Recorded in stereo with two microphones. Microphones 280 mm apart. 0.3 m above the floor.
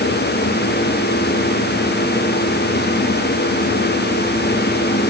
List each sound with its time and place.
Only background noise.